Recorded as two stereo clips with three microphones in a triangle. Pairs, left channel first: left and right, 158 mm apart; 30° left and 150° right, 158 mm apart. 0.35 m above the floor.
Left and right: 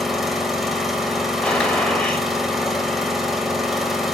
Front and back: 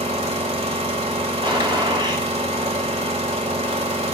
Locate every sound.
0.0 s an engine running: straight behind, 1.5 m
1.4 s a gunshot: 170° left, 2.0 m